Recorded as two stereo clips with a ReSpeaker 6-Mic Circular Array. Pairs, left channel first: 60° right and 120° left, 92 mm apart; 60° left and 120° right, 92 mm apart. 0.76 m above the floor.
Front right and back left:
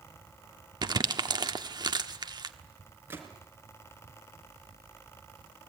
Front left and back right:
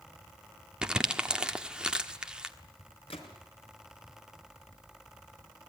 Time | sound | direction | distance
0.8 | crumpling | 160° left | 1.3 m
3.1 | a gunshot | 55° left | 4 m